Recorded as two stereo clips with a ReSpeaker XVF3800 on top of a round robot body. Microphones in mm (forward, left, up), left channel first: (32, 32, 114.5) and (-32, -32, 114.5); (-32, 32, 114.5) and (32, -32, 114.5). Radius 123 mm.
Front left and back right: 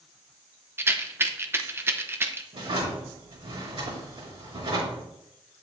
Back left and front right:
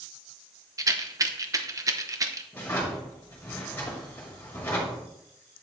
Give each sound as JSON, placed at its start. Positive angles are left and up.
{"t": 0.8, "sound": "a rattle", "azimuth_deg": -80, "distance_m": 1.0}
{"t": 2.5, "sound": "a drawer", "azimuth_deg": -155, "distance_m": 4.0}